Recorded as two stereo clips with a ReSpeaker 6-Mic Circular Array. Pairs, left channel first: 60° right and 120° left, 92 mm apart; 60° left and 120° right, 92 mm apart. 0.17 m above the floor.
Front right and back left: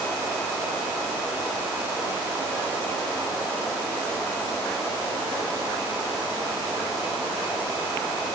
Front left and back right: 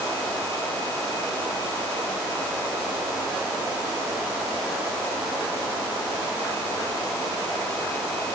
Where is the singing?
I don't hear singing.